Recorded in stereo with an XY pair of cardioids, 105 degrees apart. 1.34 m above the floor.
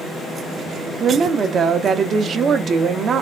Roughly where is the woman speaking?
Ahead right.